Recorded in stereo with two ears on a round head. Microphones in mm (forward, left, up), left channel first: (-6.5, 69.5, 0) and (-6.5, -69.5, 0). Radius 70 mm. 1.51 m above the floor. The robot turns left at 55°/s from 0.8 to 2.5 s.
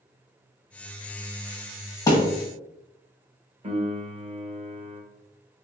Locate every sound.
2.1 s a thud: 25° left (ahead or behind), 1.4 m
3.6 s a piano: 40° right (ahead or behind), 0.9 m